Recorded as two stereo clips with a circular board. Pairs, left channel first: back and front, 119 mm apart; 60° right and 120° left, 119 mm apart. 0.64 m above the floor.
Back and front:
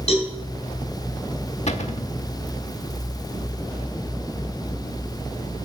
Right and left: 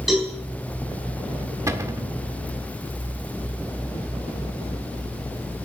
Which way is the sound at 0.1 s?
150° right.